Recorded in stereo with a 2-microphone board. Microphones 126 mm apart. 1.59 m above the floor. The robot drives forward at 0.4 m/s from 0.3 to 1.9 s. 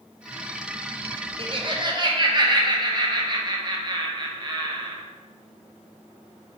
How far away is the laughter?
About 0.6 m.